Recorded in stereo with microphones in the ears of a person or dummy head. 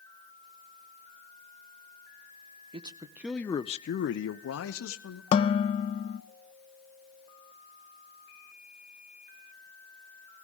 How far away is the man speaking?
About 0.8 m.